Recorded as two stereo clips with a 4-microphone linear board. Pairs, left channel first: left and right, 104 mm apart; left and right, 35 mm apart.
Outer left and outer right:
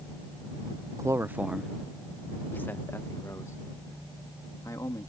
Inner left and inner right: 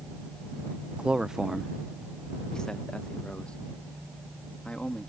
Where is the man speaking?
30° right (ahead or behind); by 5.1 s 35° left (ahead or behind).